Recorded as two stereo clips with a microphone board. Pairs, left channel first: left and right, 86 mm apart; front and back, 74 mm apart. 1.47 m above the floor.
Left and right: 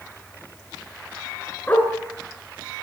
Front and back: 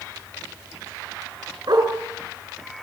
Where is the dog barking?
160° left, 5 m.